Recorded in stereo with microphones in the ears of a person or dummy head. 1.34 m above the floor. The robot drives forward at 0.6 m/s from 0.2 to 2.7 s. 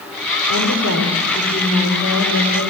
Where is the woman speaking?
70° left (ahead or behind), 4 m; by 2.7 s 55° left (ahead or behind), 4.5 m.